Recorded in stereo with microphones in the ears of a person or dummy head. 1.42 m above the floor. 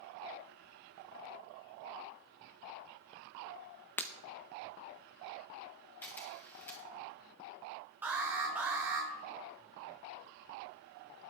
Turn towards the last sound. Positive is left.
turn(degrees=-10)  # may be behind; listen again after turning